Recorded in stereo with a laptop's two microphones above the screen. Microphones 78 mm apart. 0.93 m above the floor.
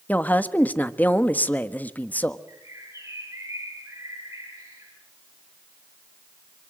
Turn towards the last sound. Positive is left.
turn(degrees=-35)  # may be behind; listen again after turning